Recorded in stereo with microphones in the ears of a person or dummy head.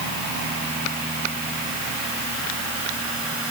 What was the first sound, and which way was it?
Only background noise.